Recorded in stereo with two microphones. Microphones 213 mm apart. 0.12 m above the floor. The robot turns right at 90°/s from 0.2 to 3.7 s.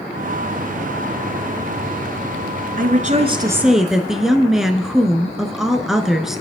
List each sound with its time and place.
2.8 s a woman speaking: 85° right, 1.3 m; by 6.4 s 5° right, 1.3 m